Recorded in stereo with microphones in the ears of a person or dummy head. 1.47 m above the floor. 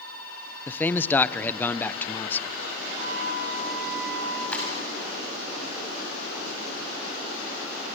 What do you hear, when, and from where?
0.7 s a man speaking: 10° left (ahead or behind), 0.7 m
3.0 s a flute: 65° left (ahead or behind), 7.5 m
4.5 s breaking glass: 5° left (ahead or behind), 6 m